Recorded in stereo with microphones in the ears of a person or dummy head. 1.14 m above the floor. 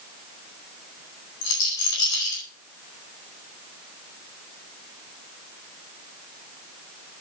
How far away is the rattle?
About 4.5 m.